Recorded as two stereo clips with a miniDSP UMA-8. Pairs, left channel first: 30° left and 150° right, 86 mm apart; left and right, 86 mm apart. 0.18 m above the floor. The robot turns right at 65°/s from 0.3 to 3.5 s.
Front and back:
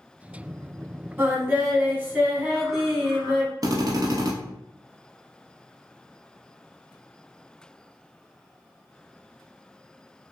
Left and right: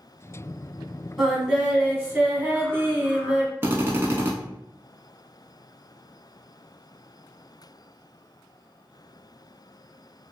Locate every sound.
1.2 s singing: 170° right, 1.0 m; by 3.5 s 20° right, 1.0 m
3.6 s a drill: 140° right, 0.7 m